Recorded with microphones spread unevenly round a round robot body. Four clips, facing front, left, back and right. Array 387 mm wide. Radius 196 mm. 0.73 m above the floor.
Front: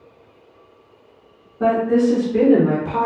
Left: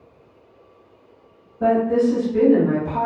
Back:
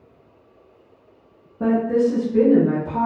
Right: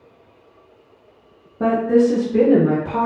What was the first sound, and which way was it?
A woman speaking, 90° right.